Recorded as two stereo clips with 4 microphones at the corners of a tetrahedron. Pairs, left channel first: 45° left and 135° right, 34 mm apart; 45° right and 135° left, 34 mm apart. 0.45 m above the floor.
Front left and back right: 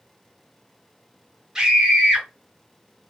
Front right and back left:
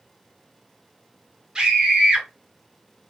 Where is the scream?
170° left, 1.2 m.